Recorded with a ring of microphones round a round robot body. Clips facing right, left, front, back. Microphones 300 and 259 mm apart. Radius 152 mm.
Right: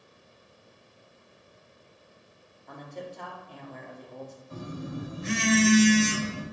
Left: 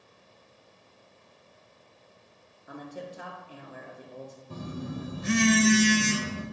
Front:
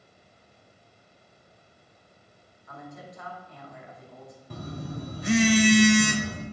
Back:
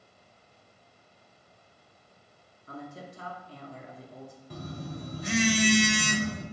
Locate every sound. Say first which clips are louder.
2.7 s a man speaking: left 1 dB, back 2 dB; 165° left, 0.7 m
4.5 s a phone buzzing: left 1 dB, front 3 dB; 40° left, 0.7 m